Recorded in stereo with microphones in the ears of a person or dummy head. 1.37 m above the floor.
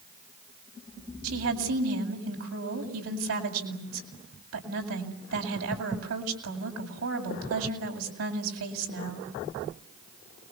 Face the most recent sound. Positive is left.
turn(degrees=-85)